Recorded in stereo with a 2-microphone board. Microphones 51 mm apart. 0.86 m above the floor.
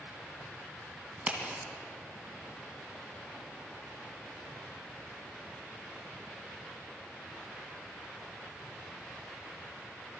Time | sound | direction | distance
1.2 | a crack | 20° right (ahead or behind) | 2 m